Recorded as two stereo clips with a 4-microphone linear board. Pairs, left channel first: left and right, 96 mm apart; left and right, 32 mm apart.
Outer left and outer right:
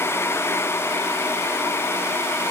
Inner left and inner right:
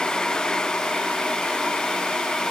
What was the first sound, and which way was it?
Only background noise.